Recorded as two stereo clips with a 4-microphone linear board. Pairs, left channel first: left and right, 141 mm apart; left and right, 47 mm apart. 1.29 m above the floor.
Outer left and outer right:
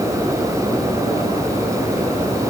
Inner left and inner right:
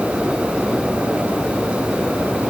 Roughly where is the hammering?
I don't hear hammering.